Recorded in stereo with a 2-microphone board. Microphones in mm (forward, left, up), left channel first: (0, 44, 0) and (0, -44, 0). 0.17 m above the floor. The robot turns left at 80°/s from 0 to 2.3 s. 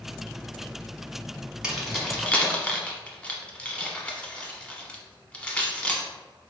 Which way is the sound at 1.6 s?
10° right (ahead or behind).